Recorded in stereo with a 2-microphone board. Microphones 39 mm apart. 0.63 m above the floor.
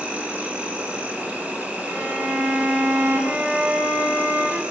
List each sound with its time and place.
0.0 s an insect: 35° right (ahead or behind), 5 m
1.9 s a violin: 85° right, 4 m